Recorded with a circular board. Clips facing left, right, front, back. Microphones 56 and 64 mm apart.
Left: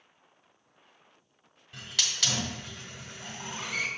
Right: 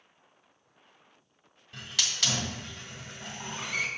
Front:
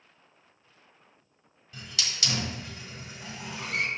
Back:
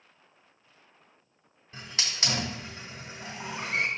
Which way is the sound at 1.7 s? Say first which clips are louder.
Even, back 1 dB; 175° right.